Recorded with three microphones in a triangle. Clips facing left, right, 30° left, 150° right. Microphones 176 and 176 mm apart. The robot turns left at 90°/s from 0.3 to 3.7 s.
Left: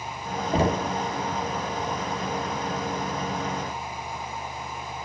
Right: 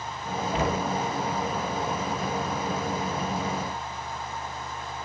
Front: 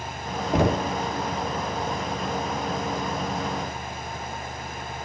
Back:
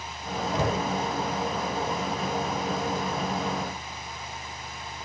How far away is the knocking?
About 0.7 m.